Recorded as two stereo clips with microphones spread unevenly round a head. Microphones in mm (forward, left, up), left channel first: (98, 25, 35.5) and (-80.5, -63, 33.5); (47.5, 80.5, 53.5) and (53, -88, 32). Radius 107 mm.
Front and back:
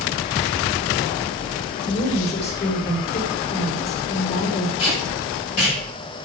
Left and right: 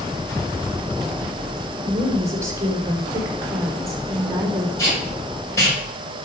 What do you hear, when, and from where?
1.8 s a woman speaking: 15° right, 4.5 m
4.8 s tape being pulled: 20° left, 6.5 m